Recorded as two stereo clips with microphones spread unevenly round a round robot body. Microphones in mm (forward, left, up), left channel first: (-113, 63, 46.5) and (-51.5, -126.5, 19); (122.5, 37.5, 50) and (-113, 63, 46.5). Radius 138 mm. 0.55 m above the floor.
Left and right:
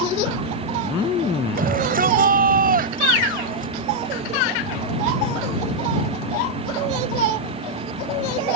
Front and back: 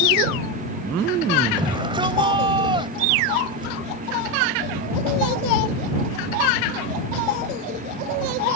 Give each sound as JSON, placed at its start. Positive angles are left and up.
{"t": 1.6, "sound": "a shout", "azimuth_deg": -115}